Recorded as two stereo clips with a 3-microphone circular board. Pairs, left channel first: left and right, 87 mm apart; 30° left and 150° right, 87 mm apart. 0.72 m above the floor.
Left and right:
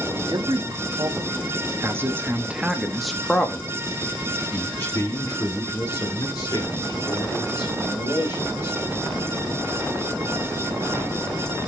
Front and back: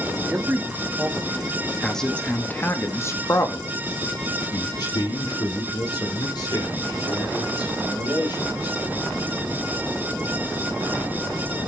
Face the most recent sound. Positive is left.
turn(degrees=55)